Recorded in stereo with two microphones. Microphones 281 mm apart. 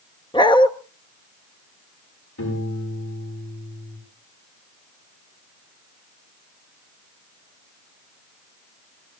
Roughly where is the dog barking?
Centre.